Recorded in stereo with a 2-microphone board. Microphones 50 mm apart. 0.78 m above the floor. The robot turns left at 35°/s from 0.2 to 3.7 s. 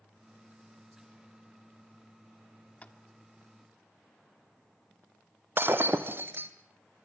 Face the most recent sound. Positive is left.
turn(degrees=-45)  # may be behind; listen again after turning